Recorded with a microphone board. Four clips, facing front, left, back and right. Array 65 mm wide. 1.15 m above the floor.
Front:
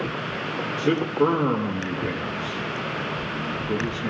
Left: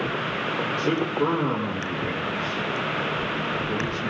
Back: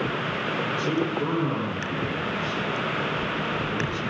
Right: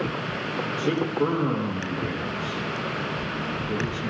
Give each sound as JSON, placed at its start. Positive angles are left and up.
{"t": 0.8, "sound": "a man speaking", "azimuth_deg": 10, "distance_m": 1.5}